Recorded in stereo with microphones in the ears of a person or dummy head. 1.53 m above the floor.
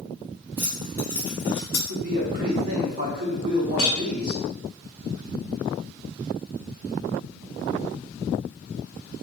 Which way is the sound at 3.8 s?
45° left (ahead or behind).